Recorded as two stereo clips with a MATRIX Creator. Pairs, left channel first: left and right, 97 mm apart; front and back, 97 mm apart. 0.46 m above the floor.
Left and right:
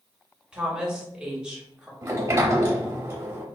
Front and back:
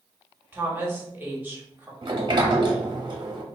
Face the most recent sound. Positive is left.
turn(degrees=-150)